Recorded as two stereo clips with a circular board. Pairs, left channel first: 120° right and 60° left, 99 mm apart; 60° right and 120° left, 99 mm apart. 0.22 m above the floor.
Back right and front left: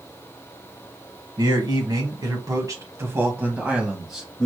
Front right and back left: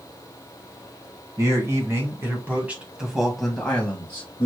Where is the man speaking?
70° left, 1.8 m; by 4.5 s 45° right, 1.2 m.